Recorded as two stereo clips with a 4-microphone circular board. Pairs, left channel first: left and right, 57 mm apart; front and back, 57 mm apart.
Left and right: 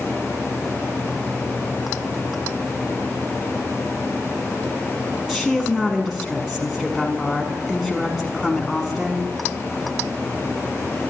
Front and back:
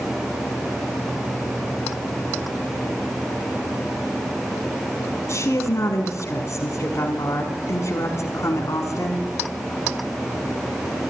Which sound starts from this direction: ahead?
A woman speaking, at 5.3 s.